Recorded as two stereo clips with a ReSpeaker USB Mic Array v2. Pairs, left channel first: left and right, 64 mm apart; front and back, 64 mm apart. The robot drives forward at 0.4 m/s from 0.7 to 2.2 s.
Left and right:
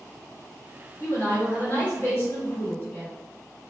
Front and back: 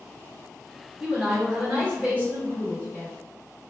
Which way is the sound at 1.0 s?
110° left.